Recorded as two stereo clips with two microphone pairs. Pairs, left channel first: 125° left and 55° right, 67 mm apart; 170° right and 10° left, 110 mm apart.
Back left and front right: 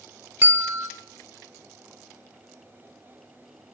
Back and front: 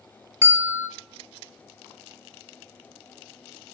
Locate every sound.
0.4 s a bell: 30° right, 0.6 m